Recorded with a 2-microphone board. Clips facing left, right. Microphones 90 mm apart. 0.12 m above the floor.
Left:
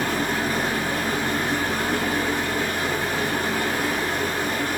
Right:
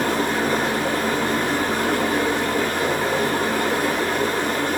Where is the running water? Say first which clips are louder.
Right 3 dB; 75° right (ahead or behind), 0.8 m.